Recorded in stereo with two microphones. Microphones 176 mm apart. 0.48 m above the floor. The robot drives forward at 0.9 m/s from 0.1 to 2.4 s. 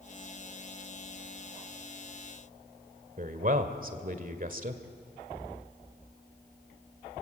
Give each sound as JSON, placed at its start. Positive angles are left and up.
{"t": 3.2, "sound": "a man speaking", "side_deg": -50, "distance_m": 1.6}